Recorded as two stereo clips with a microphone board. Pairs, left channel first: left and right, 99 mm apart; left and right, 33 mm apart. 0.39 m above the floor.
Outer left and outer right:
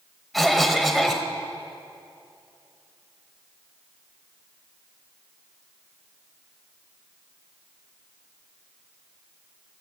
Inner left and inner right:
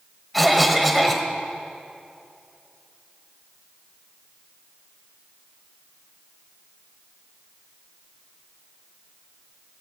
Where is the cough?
Centre (ahead or behind), 1.4 m.